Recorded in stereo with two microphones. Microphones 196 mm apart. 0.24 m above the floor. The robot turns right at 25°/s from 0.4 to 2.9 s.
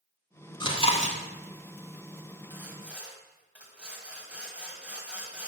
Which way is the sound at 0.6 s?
25° left (ahead or behind).